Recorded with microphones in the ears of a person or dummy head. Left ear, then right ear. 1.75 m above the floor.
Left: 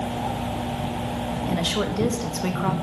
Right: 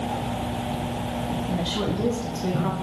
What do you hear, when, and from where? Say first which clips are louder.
1.5 s a woman speaking: left 4 dB; 65° left (ahead or behind), 2 m